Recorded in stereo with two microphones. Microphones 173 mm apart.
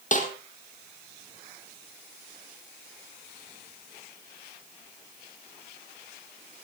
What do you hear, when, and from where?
0.1 s a snare drum: 45° left (ahead or behind), 4.5 m